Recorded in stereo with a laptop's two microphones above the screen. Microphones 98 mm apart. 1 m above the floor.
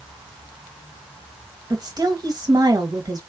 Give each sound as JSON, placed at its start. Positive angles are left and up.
{"t": 1.7, "sound": "a woman speaking", "side_deg": -40, "distance_m": 1.1}